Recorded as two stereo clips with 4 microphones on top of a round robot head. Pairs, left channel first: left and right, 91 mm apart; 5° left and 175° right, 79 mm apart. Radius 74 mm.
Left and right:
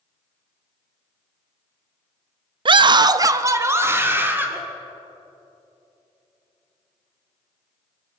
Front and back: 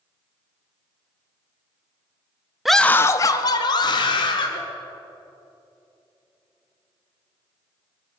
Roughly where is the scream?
Right.